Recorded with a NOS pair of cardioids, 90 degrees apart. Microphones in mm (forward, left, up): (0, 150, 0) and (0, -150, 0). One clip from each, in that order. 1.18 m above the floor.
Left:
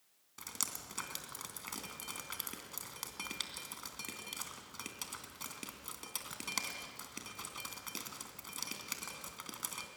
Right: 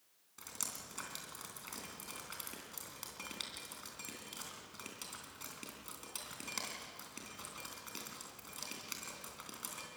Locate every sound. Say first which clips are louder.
0.4 s dripping: left 3 dB; 30° left, 3 m